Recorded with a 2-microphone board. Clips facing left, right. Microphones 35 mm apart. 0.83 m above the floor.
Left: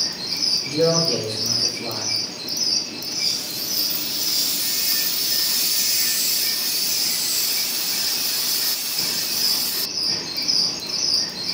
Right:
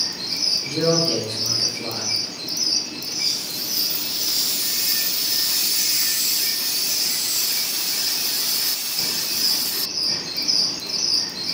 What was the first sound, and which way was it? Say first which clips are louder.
A man speaking: left 1 dB; 45° right (ahead or behind).